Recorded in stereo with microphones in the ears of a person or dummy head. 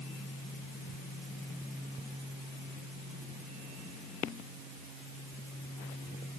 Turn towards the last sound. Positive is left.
No sound to turn to.